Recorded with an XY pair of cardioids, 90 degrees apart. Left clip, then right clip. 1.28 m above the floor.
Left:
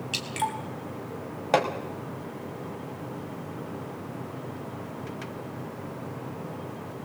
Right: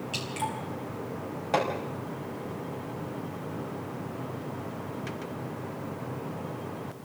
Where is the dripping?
55° left, 4.5 m.